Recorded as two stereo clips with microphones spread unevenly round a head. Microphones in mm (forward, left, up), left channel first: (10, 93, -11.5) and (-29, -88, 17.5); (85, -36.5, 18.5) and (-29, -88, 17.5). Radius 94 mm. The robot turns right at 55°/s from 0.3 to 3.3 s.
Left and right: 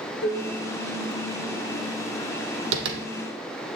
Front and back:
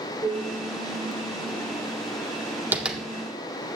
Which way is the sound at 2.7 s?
85° right.